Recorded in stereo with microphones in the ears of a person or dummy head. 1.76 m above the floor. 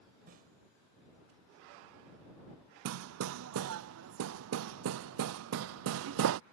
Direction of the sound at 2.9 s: 60° right (ahead or behind).